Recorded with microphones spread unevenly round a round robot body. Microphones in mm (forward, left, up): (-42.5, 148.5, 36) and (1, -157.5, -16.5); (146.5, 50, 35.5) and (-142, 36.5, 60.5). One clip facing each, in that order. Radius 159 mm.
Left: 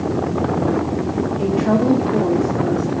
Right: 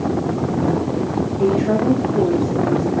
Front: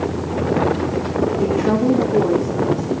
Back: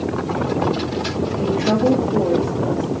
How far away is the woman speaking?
About 1.6 m.